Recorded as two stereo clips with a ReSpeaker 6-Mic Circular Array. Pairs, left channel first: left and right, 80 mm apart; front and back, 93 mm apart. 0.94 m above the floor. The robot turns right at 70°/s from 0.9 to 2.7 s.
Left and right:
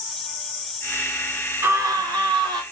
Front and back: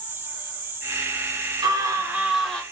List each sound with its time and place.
1.6 s a scream: 145° right, 2 m; by 2.6 s 75° right, 2 m